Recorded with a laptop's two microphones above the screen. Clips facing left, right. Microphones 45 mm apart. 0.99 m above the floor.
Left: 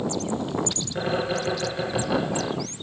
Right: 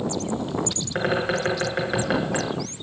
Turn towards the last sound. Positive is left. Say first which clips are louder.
# right 3 dB
turn(degrees=-65)  # may be behind; listen again after turning